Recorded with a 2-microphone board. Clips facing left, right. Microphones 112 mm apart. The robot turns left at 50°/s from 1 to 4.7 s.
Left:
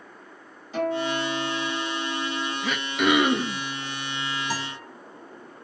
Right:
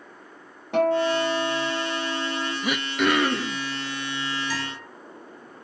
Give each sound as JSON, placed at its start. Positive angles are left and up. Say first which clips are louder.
{"t": 0.7, "sound": "a guitar", "louder": "right 5 dB", "azimuth_deg": -65, "distance_m": 3.5}
{"t": 2.6, "sound": "throat clearing", "louder": "even", "azimuth_deg": -165, "distance_m": 0.9}
{"t": 4.5, "sound": "a guitar", "louder": "even", "side_deg": 40, "distance_m": 4.0}